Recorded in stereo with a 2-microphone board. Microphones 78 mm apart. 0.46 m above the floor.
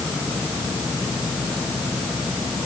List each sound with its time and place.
Only background noise.